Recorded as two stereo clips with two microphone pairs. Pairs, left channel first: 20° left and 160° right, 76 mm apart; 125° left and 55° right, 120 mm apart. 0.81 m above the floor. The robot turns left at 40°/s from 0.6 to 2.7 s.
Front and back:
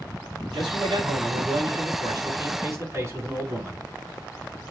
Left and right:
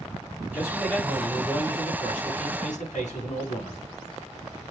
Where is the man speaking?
135° right, 5 m; by 3.8 s 140° left, 5 m.